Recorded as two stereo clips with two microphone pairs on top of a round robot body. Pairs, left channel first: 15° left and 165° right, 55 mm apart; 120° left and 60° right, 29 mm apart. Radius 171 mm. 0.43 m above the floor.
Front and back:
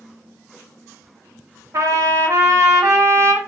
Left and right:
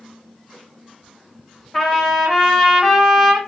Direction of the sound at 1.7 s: 165° right.